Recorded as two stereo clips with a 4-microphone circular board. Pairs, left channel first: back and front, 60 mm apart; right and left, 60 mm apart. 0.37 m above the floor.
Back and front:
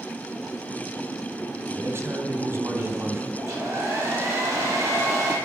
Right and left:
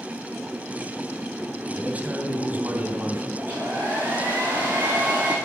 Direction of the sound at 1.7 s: 25° left.